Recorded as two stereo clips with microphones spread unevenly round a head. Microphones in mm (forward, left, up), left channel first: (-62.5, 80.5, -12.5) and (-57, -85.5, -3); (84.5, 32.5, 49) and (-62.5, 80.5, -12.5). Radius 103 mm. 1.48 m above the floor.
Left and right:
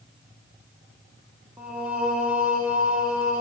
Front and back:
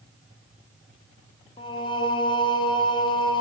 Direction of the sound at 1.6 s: 10° right.